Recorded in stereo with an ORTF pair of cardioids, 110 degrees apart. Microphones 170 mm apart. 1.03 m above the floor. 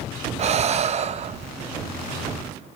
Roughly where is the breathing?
Ahead right.